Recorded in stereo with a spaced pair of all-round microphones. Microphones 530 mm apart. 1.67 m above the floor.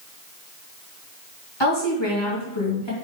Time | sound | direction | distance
1.6 | a woman speaking | 50° left (ahead or behind) | 2.5 m